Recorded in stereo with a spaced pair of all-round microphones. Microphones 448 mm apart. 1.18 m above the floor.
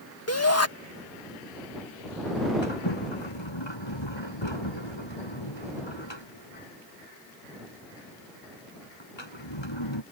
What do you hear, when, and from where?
0.3 s a shout: 35° left (ahead or behind)
2.6 s a sliding door: 75° left (ahead or behind)